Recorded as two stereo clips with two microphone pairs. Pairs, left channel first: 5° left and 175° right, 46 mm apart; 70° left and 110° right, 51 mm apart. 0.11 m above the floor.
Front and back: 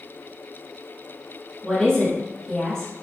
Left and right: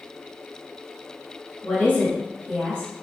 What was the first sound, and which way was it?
A woman speaking, 60° left.